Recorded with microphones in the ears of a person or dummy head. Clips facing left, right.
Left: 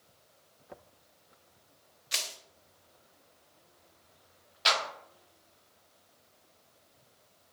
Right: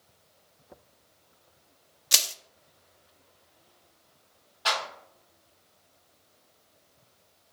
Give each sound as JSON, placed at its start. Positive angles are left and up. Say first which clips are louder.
{"t": 2.1, "sound": "crushing", "louder": "right 5 dB", "side_deg": -50, "distance_m": 0.5}
{"t": 4.7, "sound": "a clap", "louder": "right 1 dB", "side_deg": 35, "distance_m": 2.5}